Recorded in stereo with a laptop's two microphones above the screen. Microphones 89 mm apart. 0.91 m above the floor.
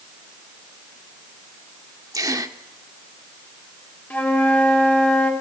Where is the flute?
20° left (ahead or behind), 2 m.